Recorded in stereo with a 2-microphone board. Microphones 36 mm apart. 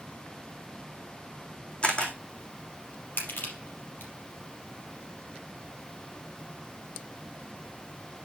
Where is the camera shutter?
30° left (ahead or behind), 2 m.